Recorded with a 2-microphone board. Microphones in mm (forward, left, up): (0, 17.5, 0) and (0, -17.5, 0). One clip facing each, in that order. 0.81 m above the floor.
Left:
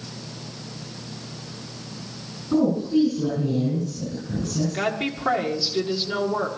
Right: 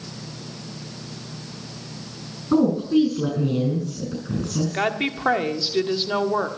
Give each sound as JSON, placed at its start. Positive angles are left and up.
{"t": 2.5, "sound": "a woman speaking", "side_deg": -45, "distance_m": 6.5}
{"t": 4.7, "sound": "a woman speaking", "side_deg": -25, "distance_m": 1.5}